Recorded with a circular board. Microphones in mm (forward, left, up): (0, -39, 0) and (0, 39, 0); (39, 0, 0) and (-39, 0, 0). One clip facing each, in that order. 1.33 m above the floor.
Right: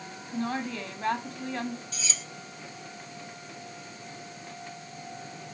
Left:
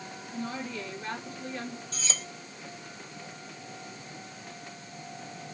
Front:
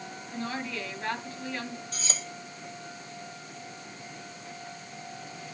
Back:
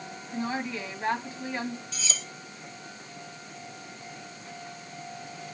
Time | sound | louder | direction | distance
0.3 | a woman speaking | right 5 dB, back 3 dB | 110° right | 3 m
1.9 | cutlery clinking | left 1 dB, even | 45° left | 1.2 m